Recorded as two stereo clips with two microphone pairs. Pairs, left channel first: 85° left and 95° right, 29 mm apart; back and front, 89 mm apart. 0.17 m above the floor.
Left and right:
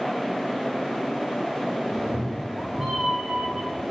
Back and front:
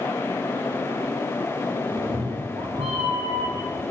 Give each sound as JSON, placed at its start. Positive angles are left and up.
{"t": 1.9, "sound": "a cat meowing", "azimuth_deg": 15, "distance_m": 3.0}